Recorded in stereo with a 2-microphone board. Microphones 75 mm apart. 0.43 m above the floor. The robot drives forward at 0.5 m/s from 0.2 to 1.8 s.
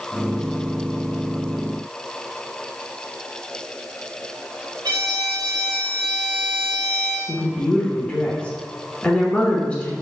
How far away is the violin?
About 0.8 m.